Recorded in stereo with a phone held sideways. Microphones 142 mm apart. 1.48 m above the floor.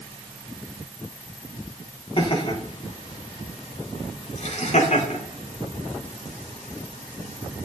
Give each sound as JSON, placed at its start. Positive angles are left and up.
{"t": 2.2, "sound": "laughter", "side_deg": 40, "distance_m": 4.0}